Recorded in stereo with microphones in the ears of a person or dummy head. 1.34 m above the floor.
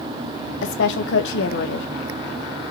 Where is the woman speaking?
75° left (ahead or behind), 1.4 m.